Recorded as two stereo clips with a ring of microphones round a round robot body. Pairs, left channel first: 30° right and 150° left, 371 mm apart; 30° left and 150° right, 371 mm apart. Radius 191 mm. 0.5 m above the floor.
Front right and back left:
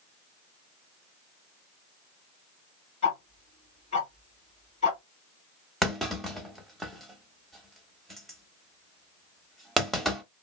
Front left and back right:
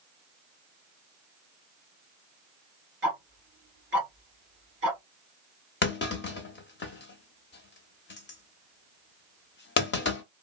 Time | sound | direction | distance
3.0 | ticking | 100° right | 1.7 m
5.8 | a clunk | 60° left | 0.8 m